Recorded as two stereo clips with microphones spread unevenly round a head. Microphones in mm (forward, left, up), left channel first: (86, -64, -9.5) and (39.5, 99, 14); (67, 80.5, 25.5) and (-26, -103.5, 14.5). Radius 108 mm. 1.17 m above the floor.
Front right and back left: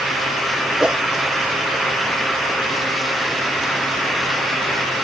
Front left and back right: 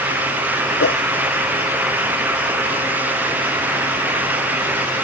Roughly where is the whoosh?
Ahead.